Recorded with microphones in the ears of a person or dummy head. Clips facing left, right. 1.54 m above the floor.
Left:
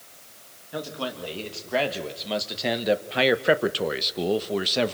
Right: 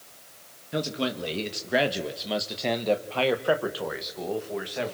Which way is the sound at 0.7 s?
30° right (ahead or behind).